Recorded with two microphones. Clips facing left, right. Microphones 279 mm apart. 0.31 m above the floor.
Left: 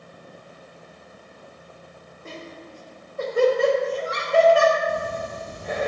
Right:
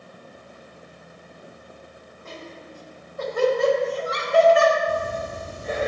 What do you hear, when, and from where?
2.2 s laughter: 30° left (ahead or behind), 1.3 m
4.9 s breathing: 30° right (ahead or behind), 1.1 m